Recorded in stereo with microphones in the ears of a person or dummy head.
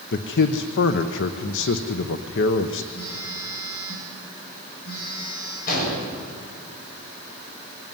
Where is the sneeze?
I don't hear a sneeze.